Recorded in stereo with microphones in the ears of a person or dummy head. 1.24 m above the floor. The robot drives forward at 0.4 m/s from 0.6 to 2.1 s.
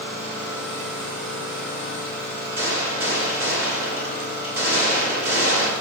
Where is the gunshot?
70° right (ahead or behind), 1.7 m.